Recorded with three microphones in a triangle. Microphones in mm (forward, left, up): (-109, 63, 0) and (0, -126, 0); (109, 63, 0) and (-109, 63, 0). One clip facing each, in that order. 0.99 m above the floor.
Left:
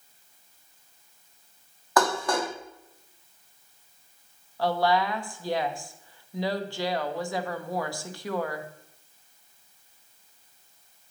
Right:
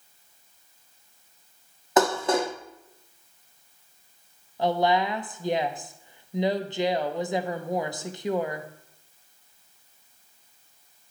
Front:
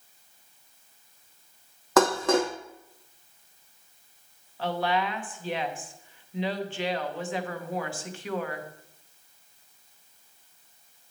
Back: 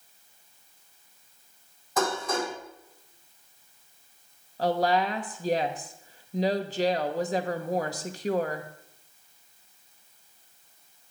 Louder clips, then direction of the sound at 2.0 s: Right 3 dB, front 7 dB; 5° left.